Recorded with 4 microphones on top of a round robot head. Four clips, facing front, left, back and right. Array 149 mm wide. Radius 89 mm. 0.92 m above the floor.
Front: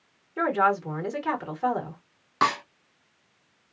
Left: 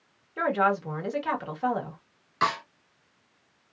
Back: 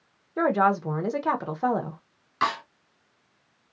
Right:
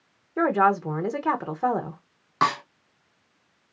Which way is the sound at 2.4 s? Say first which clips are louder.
Right 3 dB, front 2 dB; 55° right.